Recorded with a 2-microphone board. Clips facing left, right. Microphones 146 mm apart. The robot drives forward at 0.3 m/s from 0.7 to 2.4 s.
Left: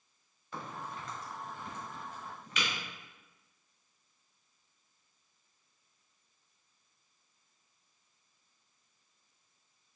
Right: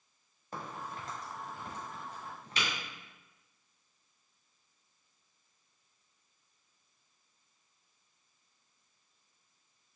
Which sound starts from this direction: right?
A crack, at 0.5 s.